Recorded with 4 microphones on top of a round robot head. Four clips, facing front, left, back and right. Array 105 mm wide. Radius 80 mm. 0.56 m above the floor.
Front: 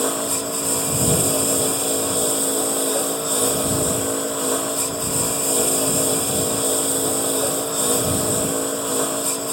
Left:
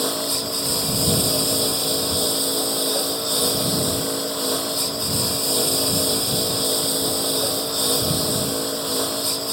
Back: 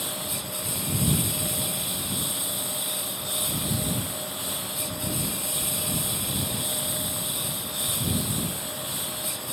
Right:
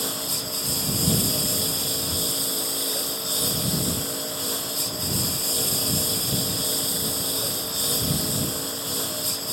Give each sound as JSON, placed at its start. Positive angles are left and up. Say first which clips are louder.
{"t": 0.0, "sound": "a lawn mower", "louder": "left 7 dB, front 12 dB", "azimuth_deg": 25}